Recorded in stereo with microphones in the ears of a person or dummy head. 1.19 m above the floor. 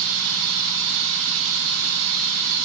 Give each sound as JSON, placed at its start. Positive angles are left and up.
{"t": 0.0, "sound": "running water", "side_deg": -65, "distance_m": 0.9}